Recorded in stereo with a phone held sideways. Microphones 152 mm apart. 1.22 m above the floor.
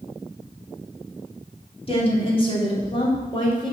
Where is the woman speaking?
40° left (ahead or behind), 3 m; by 3.7 s 30° left (ahead or behind), 4 m.